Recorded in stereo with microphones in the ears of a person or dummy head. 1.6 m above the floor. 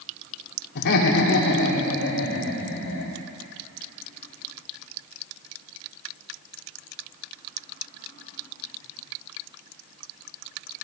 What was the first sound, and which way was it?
Laughter, 60° left (ahead or behind).